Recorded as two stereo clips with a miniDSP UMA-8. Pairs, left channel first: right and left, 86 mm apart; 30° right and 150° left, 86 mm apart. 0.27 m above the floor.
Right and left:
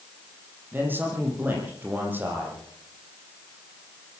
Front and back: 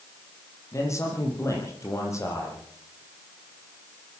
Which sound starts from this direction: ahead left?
A man speaking, at 0.7 s.